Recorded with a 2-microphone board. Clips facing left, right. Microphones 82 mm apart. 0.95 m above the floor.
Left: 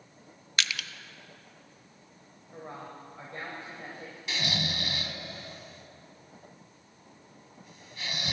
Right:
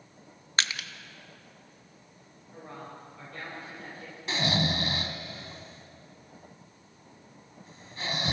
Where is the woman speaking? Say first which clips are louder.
Left 1 dB; 30° left (ahead or behind), 5.5 m.